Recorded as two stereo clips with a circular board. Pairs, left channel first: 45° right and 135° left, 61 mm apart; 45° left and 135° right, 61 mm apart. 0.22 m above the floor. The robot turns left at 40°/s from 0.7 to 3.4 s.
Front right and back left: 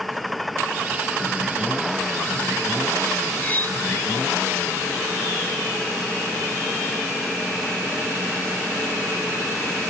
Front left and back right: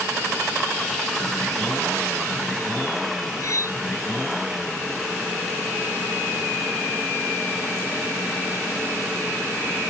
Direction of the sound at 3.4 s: 15° left.